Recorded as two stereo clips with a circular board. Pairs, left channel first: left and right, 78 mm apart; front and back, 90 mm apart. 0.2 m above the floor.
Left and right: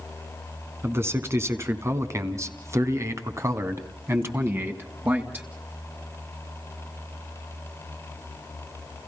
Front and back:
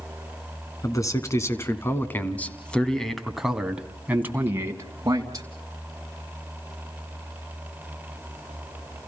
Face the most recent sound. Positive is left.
turn(degrees=-150)